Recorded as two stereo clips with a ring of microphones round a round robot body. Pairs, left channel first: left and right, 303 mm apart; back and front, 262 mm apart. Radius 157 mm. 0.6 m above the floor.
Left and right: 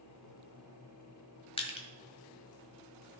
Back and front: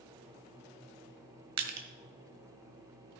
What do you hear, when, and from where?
1.6 s crushing: 15° left, 1.4 m